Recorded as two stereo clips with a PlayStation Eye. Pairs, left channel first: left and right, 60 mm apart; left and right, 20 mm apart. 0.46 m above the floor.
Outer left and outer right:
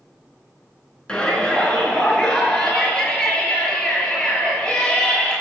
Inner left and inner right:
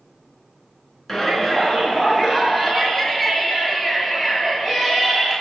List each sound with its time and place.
1.1 s a shout: 15° left (ahead or behind), 5 m